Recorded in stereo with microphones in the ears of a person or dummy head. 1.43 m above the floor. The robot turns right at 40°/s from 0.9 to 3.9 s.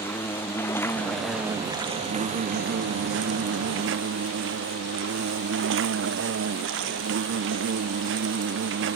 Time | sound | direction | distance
0.0 | an insect | 165° left | ?